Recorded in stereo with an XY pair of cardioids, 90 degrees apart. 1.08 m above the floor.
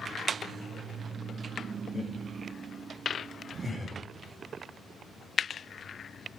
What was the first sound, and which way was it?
Laughter, 30° left.